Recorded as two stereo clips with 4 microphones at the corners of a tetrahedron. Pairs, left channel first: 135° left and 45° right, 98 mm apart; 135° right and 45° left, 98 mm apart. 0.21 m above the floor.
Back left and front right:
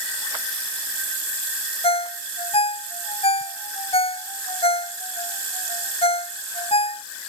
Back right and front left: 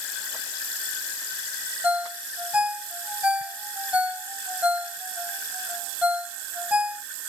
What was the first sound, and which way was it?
A ringtone, 125° left.